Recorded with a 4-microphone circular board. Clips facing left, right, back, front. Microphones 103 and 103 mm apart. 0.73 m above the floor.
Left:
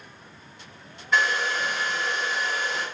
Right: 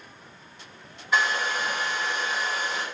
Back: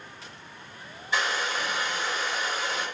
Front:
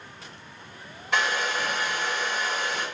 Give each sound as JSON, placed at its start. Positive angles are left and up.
{"t": 1.1, "sound": "a hair dryer", "azimuth_deg": -5, "distance_m": 1.6}